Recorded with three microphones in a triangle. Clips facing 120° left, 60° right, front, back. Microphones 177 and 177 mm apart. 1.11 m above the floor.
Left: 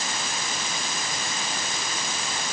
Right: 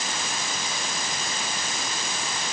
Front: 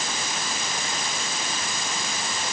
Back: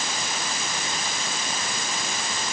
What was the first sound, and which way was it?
Only background noise.